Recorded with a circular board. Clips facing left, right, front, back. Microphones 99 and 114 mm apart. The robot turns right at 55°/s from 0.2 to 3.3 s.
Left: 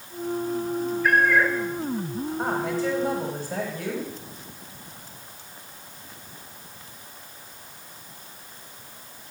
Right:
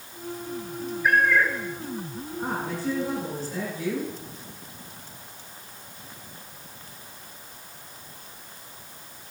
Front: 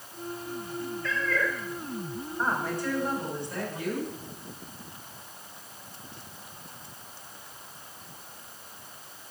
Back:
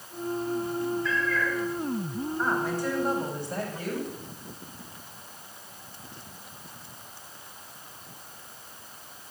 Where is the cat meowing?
10° right, 2.5 m; by 1.6 s 20° left, 2.5 m.